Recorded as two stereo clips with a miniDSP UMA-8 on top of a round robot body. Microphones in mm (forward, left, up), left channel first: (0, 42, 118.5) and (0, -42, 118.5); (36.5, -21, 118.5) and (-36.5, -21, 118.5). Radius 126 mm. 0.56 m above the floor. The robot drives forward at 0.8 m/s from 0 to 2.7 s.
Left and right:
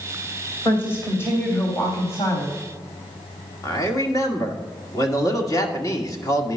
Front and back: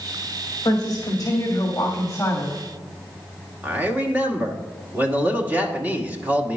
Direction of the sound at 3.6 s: 120° left.